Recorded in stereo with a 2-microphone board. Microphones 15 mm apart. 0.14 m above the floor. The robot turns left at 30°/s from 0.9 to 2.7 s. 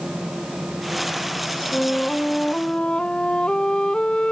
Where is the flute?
45° left (ahead or behind); by 4.3 s 75° left (ahead or behind).